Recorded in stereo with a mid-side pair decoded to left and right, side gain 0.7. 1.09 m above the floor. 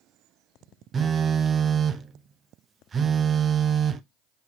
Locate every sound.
0.9 s a phone buzzing: 25° right, 0.6 m